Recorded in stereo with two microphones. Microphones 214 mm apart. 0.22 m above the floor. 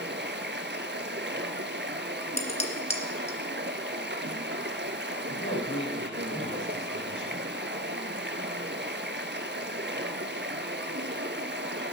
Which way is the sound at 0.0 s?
60° right (ahead or behind).